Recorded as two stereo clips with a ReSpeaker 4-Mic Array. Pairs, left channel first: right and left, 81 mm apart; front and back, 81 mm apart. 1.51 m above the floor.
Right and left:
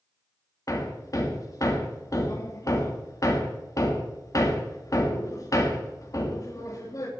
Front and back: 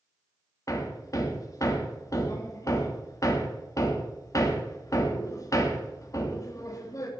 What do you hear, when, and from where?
0.7 s hammering: 45° right, 2.5 m